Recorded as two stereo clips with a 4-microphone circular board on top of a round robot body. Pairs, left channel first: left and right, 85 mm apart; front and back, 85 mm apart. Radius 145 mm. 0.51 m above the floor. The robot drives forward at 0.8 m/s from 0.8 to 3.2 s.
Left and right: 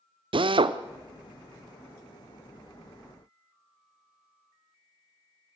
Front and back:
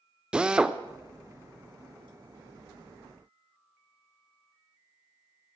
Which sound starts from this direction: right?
A drill, at 0.3 s.